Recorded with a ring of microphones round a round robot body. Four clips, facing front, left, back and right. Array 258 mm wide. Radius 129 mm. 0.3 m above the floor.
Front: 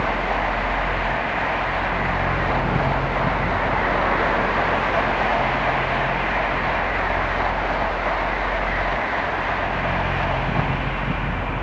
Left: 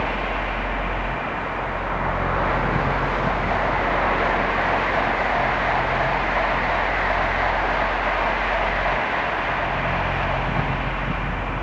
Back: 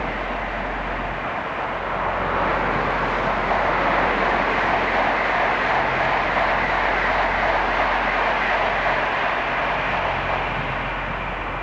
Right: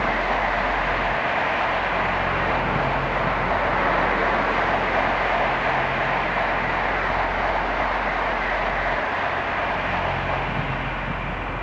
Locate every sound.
Only background noise.